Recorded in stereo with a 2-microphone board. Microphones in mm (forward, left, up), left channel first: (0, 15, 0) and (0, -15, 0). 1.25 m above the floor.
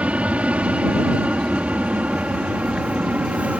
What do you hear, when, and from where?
0.0 s an aircraft: 50° right (ahead or behind); by 3.6 s 55° right (ahead or behind)